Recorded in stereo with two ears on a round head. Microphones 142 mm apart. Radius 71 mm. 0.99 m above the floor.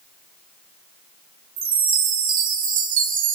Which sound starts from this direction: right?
A chime, at 1.6 s.